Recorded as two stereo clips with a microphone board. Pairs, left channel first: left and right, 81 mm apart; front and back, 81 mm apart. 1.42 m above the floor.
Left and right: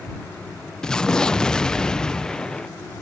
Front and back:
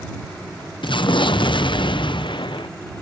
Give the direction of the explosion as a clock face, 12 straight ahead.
12 o'clock.